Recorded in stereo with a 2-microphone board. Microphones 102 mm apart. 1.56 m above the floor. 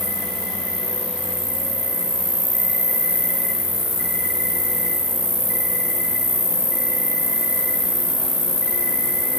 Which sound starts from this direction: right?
An insect, at 0.0 s.